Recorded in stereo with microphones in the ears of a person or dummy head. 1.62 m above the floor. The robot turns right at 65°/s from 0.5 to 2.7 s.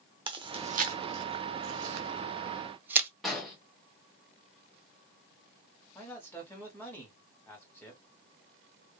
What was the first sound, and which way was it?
Chewing, 25° right (ahead or behind).